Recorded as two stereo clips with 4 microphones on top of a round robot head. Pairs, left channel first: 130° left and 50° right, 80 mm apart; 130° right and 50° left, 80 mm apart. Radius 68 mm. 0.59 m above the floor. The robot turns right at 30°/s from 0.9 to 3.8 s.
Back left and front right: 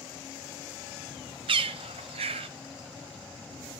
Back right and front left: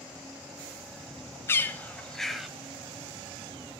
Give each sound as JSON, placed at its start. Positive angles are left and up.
{"t": 1.5, "sound": "a bird", "azimuth_deg": -65, "distance_m": 0.8}